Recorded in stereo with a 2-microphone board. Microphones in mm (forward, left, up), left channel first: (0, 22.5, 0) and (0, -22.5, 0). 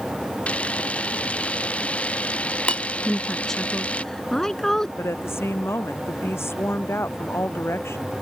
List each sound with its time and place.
0.5 s a camera shutter: 30° left (ahead or behind)
3.0 s a woman speaking: 10° left (ahead or behind)
5.0 s a woman speaking: 70° left (ahead or behind)